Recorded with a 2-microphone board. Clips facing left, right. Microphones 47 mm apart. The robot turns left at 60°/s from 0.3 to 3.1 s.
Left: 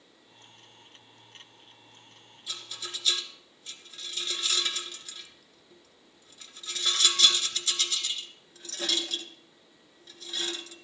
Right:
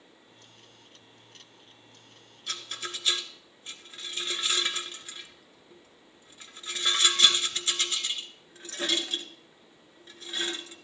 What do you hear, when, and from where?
2.5 s a rattle: 60° right (ahead or behind), 1.4 m; by 10.8 s 30° right (ahead or behind), 1.4 m